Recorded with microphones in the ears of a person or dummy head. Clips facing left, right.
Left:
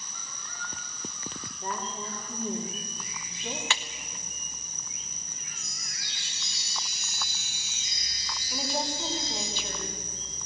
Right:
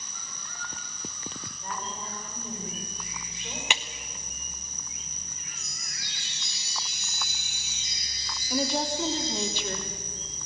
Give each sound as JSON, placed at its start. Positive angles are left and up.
{"t": 1.6, "sound": "a woman speaking", "side_deg": 35, "distance_m": 4.0}
{"t": 3.7, "sound": "a clap", "side_deg": -15, "distance_m": 0.6}
{"t": 5.6, "sound": "a chime", "side_deg": -75, "distance_m": 8.0}
{"t": 8.5, "sound": "a woman speaking", "side_deg": -55, "distance_m": 3.0}